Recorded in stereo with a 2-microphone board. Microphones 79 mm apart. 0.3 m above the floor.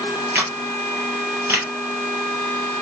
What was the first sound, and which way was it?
A camera shutter, 20° right (ahead or behind).